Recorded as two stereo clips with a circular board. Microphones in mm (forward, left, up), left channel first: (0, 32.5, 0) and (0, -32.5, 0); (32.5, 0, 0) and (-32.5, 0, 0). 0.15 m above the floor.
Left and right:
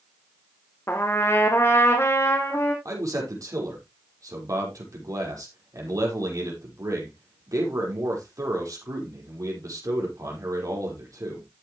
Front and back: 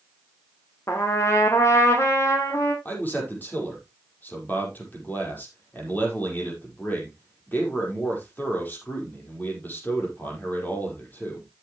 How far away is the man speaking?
About 5.5 m.